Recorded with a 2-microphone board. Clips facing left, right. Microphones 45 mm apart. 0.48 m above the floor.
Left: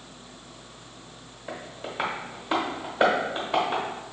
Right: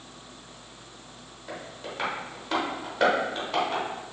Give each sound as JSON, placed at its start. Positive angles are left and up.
{"t": 1.5, "sound": "tapping", "side_deg": 20, "distance_m": 0.9}